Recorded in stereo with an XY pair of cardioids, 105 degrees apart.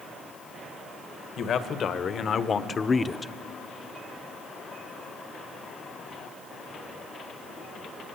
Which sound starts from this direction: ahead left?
A man speaking, at 1.4 s.